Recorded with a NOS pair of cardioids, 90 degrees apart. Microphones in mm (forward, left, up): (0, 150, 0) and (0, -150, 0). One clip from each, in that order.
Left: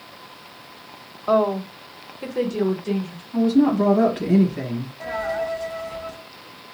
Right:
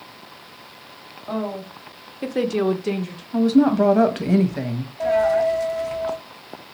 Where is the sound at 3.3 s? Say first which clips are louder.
Right 2 dB; 40° right, 1.1 m.